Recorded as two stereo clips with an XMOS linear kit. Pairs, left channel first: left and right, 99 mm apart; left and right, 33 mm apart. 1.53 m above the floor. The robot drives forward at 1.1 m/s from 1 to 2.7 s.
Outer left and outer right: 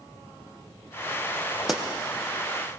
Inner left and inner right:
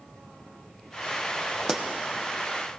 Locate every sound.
1.7 s a pop: 5° right (ahead or behind), 0.7 m; by 1.8 s 10° right (ahead or behind), 0.6 m